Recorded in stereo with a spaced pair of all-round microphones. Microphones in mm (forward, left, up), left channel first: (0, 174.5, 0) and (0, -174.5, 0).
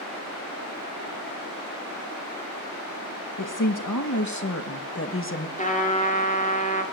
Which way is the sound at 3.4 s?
60° left (ahead or behind).